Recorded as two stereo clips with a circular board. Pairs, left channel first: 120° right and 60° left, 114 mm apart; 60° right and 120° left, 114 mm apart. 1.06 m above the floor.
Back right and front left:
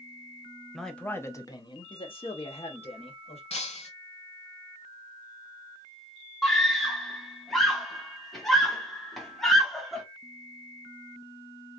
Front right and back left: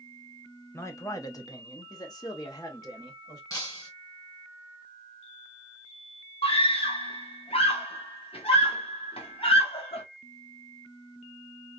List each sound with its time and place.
0.7 s a man speaking: 25° right, 0.8 m; by 3.4 s 115° right, 1.9 m
3.5 s breaking glass: 115° right, 2 m
6.4 s a scream: 30° right, 1.6 m